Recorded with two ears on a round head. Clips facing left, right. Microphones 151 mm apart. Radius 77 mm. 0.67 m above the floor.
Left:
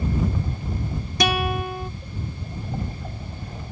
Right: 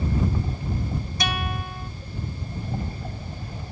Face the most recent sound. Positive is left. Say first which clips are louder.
# left 10 dB
turn(degrees=60)  # may be behind; listen again after turning